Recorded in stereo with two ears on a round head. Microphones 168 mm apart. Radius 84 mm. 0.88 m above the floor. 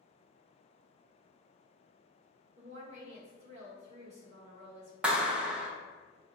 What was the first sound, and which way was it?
A woman speaking, 35° right (ahead or behind).